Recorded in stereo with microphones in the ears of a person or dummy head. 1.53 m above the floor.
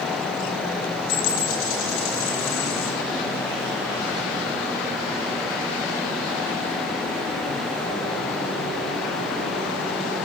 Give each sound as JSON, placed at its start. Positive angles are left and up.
{"t": 1.1, "sound": "a dropped coin", "side_deg": 65, "distance_m": 7.0}